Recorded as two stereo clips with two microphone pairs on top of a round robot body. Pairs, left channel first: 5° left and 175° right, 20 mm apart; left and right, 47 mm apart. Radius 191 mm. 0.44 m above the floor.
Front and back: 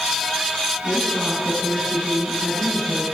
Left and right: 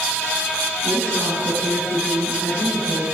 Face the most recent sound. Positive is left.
turn(degrees=60)